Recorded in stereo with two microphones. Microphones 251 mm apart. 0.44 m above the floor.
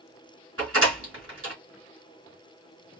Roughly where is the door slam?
Right.